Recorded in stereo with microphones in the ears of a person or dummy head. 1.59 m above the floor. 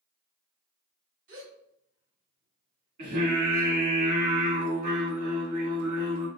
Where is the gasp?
75° right (ahead or behind), 1.7 m.